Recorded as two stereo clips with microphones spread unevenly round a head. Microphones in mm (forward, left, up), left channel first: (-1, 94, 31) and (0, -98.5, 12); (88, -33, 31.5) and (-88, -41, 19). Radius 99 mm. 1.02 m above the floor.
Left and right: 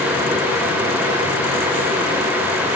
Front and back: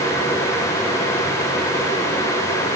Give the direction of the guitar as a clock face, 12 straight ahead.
No guitar in this recording.